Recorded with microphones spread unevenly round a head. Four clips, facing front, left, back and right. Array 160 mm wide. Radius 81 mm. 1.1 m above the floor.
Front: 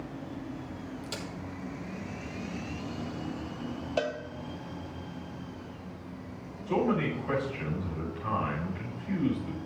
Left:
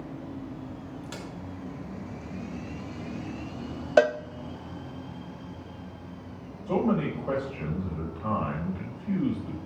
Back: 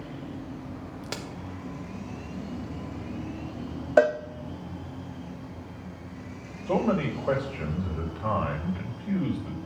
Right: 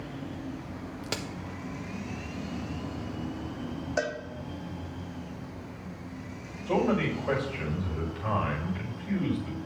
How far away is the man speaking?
About 6 m.